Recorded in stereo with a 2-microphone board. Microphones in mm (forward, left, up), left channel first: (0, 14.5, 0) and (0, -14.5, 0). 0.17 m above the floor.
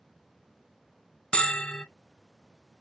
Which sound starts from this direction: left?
A bell, at 1.3 s.